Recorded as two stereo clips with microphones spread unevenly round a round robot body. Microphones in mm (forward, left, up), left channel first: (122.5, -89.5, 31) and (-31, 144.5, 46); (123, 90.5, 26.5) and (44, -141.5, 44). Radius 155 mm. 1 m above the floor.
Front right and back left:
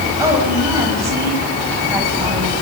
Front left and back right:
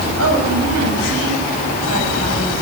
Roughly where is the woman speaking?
Behind right.